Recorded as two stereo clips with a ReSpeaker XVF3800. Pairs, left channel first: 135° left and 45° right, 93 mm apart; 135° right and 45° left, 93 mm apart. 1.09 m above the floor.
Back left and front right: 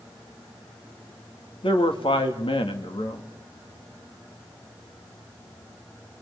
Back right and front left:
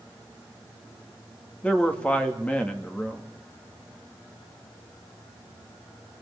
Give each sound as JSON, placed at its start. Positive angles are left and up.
{"t": 1.6, "sound": "a man speaking", "azimuth_deg": 150, "distance_m": 2.0}